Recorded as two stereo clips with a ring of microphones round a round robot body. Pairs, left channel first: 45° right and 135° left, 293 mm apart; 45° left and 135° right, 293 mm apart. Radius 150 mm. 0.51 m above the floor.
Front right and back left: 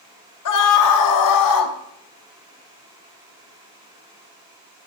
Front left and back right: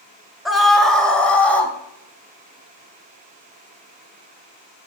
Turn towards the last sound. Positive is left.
turn(degrees=-40)